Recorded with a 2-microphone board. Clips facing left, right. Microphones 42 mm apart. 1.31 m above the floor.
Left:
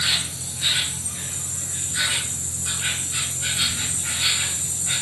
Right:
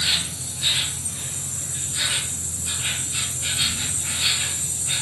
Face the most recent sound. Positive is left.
turn(degrees=40)  # may be behind; listen again after turning